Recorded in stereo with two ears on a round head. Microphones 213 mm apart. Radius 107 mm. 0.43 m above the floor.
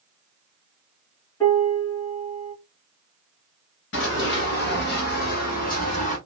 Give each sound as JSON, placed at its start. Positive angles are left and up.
{"t": 1.4, "sound": "a piano", "side_deg": 15, "distance_m": 4.0}
{"t": 3.9, "sound": "running footsteps", "side_deg": 55, "distance_m": 4.0}